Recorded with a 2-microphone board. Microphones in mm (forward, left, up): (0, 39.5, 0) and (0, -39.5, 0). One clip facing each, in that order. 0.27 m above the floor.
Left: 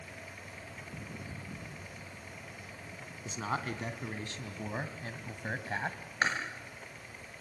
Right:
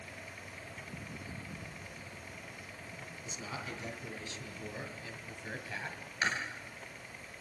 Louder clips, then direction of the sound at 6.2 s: Left 3 dB; 40° left (ahead or behind).